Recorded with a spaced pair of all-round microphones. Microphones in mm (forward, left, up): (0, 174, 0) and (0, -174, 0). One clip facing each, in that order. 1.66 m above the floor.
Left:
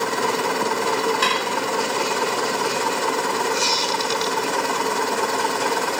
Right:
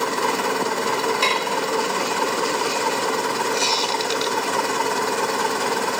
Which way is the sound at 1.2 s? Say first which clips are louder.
Even; 20° left (ahead or behind).